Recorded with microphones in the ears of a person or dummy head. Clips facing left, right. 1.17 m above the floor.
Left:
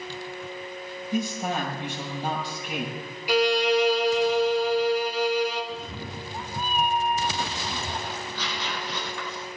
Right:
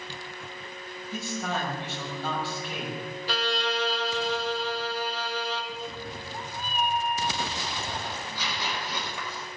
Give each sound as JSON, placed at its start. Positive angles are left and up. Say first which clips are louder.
{"t": 1.1, "sound": "a man speaking", "louder": "left 5 dB", "side_deg": 15, "distance_m": 6.0}
{"t": 3.3, "sound": "a violin", "louder": "left 10 dB", "side_deg": 15, "distance_m": 1.4}
{"t": 5.7, "sound": "a cat meowing", "louder": "left 1 dB", "side_deg": 30, "distance_m": 0.5}
{"t": 8.1, "sound": "tearing paper", "louder": "left 2 dB", "side_deg": -15, "distance_m": 5.5}